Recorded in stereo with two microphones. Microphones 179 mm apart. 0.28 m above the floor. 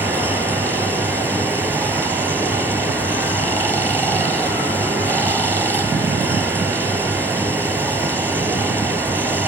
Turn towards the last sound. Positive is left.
turn(degrees=-15)  # may be behind; listen again after turning